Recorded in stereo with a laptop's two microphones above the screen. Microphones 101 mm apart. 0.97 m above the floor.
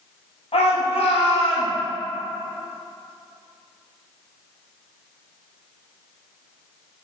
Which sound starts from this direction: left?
A shout, at 0.5 s.